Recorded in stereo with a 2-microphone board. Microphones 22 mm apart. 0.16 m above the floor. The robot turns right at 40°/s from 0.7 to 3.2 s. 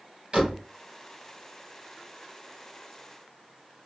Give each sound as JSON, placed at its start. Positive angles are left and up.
{"t": 0.3, "sound": "a door slam", "side_deg": -55, "distance_m": 2.0}